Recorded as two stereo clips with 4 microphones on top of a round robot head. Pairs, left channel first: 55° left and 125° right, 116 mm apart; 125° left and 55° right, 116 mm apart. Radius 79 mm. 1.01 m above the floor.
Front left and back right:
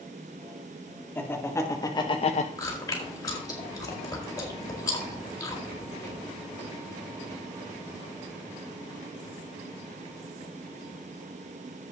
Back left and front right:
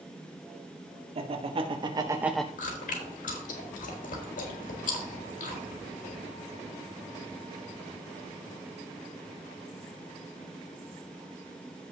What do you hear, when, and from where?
1.1 s laughter: 20° right, 2 m; by 2.5 s 50° left, 0.7 m
2.6 s chewing: 115° left, 4 m